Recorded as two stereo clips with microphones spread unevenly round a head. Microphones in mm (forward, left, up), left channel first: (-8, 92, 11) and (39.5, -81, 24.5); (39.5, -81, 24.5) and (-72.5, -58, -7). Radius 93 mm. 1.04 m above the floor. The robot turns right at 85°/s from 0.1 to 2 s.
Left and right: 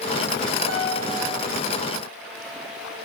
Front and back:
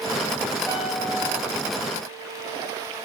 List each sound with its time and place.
0.7 s a piano: 80° right, 3.5 m; by 1.2 s 35° right, 3.5 m